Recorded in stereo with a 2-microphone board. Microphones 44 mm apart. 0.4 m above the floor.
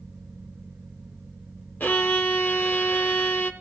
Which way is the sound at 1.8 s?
45° left (ahead or behind).